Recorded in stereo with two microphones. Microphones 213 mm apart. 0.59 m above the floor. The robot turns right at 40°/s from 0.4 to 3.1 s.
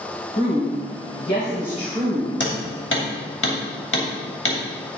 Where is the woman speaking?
85° left, 3 m; by 2.3 s 165° left, 3 m.